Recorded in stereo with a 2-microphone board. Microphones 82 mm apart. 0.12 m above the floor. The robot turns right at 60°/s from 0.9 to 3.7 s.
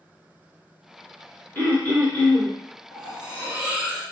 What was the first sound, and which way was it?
Throat clearing, 25° left (ahead or behind).